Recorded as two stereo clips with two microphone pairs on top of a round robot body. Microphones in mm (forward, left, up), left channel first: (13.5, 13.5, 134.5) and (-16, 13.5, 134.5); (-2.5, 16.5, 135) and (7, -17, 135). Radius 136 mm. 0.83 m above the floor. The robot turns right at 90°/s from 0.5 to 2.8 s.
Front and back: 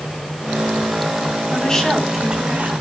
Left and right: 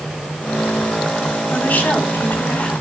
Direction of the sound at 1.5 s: 55° left.